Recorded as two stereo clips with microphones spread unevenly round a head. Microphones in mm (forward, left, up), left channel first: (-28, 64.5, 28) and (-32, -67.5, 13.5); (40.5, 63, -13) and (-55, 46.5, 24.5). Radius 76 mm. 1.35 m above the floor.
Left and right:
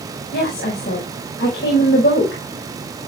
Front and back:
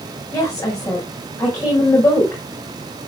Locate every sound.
0.3 s a woman speaking: 70° left, 5 m